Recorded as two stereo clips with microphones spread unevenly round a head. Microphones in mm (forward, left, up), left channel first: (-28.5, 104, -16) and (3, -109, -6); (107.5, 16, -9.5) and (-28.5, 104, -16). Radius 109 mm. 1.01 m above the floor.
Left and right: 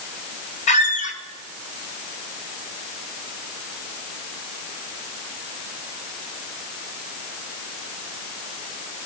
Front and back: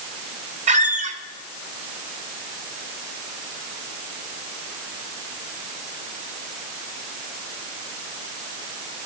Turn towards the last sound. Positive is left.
turn(degrees=140)